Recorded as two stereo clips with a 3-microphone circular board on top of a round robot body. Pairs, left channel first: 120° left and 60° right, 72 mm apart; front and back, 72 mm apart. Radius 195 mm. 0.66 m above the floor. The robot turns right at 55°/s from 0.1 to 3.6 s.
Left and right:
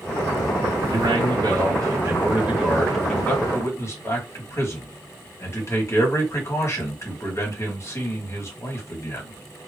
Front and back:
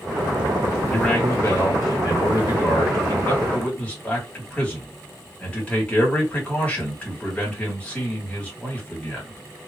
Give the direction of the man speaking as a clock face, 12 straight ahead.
3 o'clock.